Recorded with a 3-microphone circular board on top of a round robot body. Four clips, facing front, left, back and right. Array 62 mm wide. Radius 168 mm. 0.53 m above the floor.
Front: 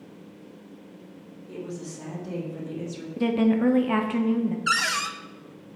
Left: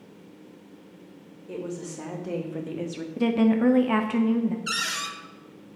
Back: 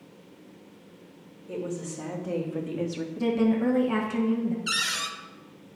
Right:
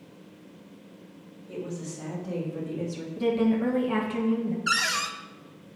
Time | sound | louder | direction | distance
1.5 | a woman speaking | left 2 dB, back 3 dB | 110° left | 3.5 m
3.2 | a woman speaking | left 3 dB, front 2 dB | 60° left | 1.7 m
4.7 | a cupboard door | right 4 dB, front 6 dB | 25° right | 1.0 m